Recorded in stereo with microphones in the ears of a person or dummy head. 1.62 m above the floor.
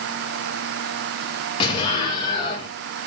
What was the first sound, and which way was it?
An explosion, 30° left (ahead or behind).